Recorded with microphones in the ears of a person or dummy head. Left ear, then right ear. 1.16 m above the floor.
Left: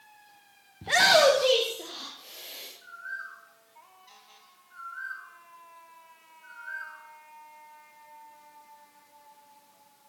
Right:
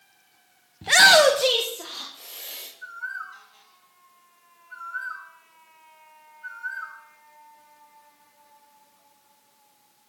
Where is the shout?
25° right (ahead or behind), 0.7 m; by 2.7 s 50° right (ahead or behind), 2.5 m.